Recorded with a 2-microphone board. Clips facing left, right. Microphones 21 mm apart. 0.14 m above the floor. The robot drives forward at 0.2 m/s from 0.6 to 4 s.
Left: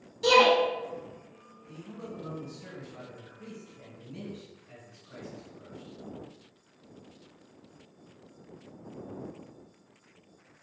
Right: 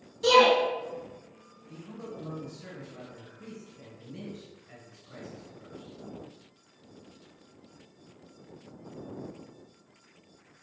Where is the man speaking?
20° left (ahead or behind), 1.8 m.